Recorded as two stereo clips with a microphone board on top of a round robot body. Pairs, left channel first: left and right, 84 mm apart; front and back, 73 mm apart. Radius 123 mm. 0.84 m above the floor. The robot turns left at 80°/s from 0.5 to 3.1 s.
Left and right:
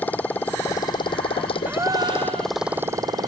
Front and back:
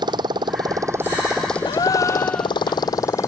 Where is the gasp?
15° right; by 2.6 s 90° right.